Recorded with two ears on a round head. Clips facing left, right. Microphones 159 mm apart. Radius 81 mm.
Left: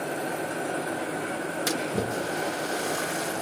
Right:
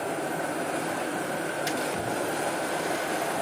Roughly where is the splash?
Left.